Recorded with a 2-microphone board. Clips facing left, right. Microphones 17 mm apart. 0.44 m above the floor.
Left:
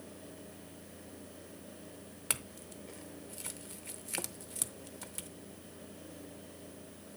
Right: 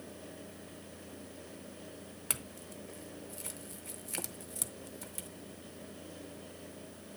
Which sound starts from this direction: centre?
A clink, at 2.3 s.